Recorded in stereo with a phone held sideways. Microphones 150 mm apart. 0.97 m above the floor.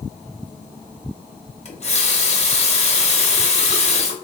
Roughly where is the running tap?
Left.